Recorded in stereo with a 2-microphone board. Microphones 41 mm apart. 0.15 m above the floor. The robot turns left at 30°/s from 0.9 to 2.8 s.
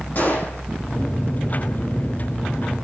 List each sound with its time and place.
0.1 s a gunshot: 45° left (ahead or behind), 7 m